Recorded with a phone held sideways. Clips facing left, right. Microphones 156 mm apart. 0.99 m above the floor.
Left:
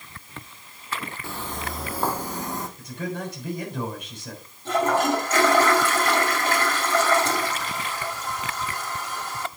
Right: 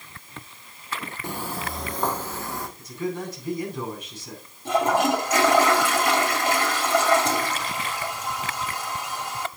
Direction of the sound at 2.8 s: 65° left (ahead or behind).